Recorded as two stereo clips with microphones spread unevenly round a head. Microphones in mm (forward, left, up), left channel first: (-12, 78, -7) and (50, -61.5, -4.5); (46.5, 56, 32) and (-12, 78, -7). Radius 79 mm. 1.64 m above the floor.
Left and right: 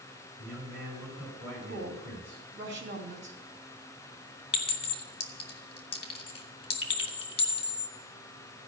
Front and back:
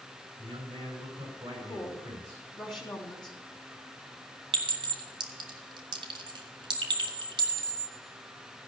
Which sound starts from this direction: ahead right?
A woman speaking, at 1.7 s.